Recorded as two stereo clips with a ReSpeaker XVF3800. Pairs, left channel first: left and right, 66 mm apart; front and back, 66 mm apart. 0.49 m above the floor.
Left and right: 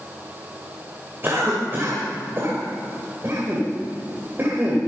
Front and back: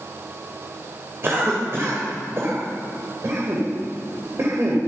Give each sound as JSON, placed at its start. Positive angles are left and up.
{"t": 1.2, "sound": "a cough", "azimuth_deg": -140, "distance_m": 2.5}